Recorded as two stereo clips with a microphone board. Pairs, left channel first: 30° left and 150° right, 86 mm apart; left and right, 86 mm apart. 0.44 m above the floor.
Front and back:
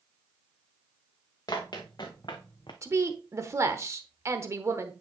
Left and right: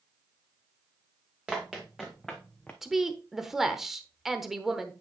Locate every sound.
1.5 s running footsteps: 10° right, 2 m; by 2.7 s 15° left, 1.3 m
2.8 s a woman speaking: 175° right, 1.0 m